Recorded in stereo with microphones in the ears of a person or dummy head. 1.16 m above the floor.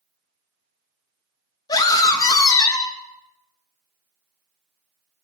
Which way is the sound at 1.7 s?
20° left (ahead or behind).